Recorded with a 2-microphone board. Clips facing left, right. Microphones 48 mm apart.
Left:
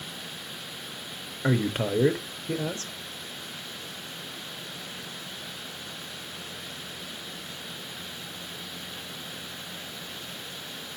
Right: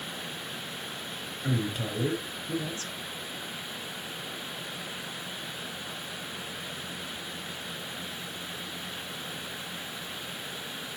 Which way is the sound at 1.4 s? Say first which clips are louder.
Left 6 dB; 50° left (ahead or behind).